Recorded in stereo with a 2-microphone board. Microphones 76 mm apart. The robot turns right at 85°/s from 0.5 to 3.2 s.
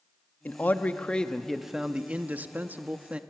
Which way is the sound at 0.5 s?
25° left (ahead or behind).